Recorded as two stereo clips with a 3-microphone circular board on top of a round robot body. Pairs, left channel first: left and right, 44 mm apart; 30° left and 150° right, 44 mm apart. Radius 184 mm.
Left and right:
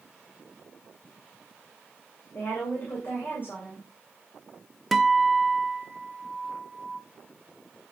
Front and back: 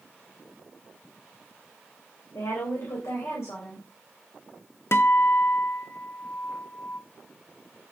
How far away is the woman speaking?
About 3.5 m.